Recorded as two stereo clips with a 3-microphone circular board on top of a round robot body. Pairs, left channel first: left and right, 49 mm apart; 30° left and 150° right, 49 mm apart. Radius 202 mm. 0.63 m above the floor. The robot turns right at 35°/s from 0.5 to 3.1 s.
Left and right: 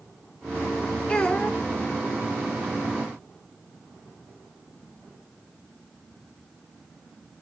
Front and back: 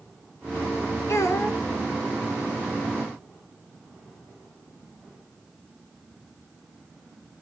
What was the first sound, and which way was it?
A child speaking, 20° left.